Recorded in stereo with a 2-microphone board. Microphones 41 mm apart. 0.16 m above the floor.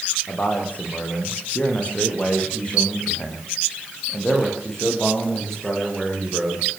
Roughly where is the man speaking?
Left.